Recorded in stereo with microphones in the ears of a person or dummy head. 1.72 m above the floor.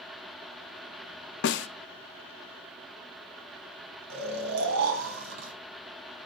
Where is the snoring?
65° right (ahead or behind), 3.5 m.